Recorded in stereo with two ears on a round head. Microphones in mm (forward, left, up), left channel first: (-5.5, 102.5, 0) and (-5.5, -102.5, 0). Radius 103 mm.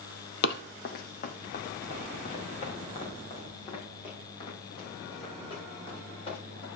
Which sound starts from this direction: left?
Running footsteps, at 0.4 s.